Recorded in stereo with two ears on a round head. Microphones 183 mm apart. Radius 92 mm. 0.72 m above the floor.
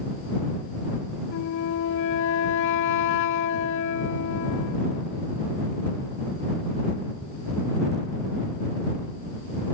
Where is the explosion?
I don't hear an explosion.